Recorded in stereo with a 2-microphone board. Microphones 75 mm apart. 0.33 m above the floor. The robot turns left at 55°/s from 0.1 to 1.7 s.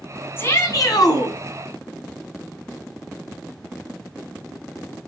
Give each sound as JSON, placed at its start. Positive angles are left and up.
{"t": 0.4, "sound": "a shout", "azimuth_deg": 145, "distance_m": 2.5}